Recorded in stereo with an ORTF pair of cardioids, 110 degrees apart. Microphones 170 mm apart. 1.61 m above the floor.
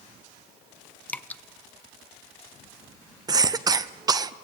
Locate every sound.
1.1 s dripping: 10° left, 0.5 m
3.3 s a cough: 20° right, 0.5 m